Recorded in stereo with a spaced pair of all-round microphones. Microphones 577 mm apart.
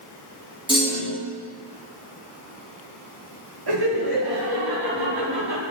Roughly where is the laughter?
Right.